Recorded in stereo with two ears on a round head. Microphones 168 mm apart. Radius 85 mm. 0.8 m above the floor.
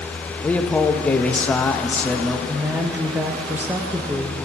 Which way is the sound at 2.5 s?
10° right (ahead or behind).